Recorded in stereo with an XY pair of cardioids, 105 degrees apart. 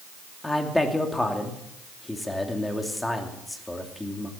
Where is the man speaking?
10° left, 2.5 m.